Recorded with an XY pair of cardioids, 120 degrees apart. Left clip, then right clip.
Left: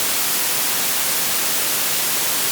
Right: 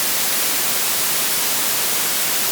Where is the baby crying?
I don't hear a baby crying.